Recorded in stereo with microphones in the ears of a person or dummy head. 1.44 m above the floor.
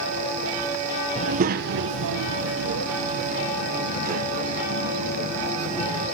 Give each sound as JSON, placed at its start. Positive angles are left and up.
{"t": 1.1, "sound": "a child speaking", "side_deg": -30, "distance_m": 0.7}